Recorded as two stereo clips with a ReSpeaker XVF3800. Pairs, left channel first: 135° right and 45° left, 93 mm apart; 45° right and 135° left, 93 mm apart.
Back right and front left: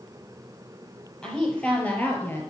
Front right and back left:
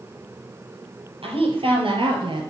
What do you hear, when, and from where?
1.2 s a woman speaking: 145° left, 5 m; by 2.5 s 160° left, 3.5 m